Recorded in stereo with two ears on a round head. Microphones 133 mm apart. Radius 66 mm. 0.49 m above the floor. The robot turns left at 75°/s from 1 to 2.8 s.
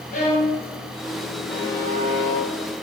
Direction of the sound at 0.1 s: 55° left (ahead or behind).